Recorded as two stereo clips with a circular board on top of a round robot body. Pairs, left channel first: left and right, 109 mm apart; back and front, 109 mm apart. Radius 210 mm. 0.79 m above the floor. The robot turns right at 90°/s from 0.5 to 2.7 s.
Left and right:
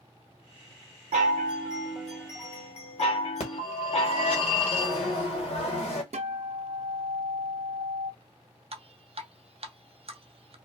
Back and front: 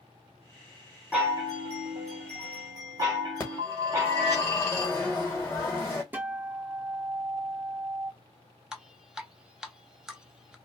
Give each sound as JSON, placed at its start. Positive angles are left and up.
{"t": 1.1, "sound": "a chime", "azimuth_deg": -85, "distance_m": 1.0}
{"t": 3.4, "sound": "a phone ringing", "azimuth_deg": 110, "distance_m": 1.3}
{"t": 6.1, "sound": "a guitar", "azimuth_deg": -70, "distance_m": 0.7}
{"t": 8.7, "sound": "dripping", "azimuth_deg": -85, "distance_m": 0.7}